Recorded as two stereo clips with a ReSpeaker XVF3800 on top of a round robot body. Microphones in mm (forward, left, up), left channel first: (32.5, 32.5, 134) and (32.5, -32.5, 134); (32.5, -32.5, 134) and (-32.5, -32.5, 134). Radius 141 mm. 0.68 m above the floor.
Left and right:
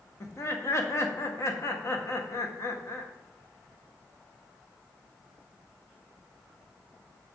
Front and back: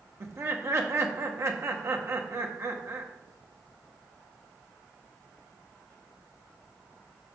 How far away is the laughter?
About 1.5 m.